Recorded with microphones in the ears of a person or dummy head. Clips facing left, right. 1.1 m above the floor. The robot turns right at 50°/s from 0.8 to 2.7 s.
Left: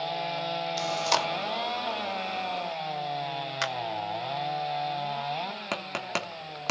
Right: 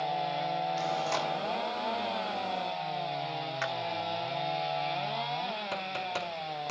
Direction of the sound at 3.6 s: 50° left (ahead or behind).